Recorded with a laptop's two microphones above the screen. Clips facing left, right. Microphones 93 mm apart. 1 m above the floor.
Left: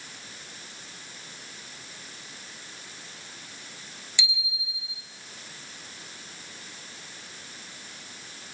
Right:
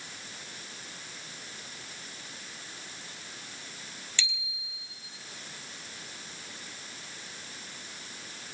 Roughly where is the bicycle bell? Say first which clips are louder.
Left 4 dB; centre.